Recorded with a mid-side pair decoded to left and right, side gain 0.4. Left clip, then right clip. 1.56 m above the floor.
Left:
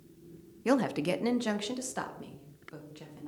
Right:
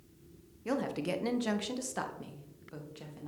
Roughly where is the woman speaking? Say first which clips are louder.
Left 6 dB; ahead left.